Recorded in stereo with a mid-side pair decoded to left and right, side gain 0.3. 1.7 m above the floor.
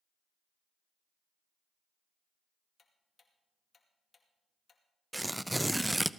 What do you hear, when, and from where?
2.8 s ticking: 50° left, 2.5 m
5.1 s tearing paper: 10° right, 0.6 m